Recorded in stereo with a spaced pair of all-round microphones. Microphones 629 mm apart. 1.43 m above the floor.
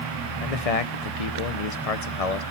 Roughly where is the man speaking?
Left.